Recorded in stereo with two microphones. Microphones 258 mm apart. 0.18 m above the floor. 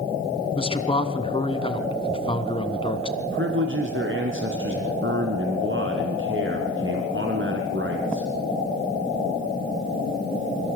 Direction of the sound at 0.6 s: 20° left (ahead or behind).